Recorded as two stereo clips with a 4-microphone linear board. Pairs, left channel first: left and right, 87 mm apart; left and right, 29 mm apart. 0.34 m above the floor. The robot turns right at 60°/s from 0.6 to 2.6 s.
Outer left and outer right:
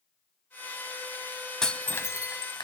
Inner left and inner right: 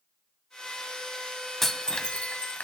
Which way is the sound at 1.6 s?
5° left (ahead or behind).